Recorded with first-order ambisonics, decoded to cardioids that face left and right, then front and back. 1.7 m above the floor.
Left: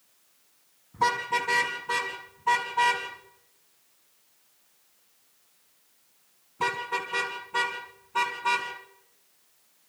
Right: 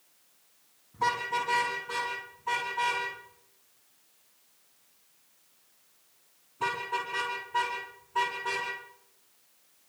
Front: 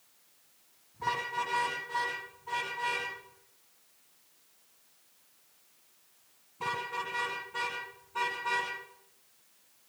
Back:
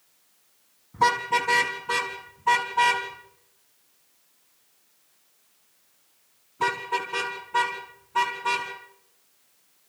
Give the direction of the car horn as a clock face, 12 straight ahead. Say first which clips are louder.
Left 3 dB, back 11 dB; 7 o'clock.